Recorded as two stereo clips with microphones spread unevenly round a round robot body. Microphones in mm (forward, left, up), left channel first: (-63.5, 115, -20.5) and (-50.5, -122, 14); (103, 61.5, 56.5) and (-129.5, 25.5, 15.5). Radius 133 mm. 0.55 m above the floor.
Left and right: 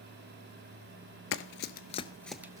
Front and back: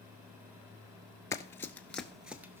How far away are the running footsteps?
About 0.7 m.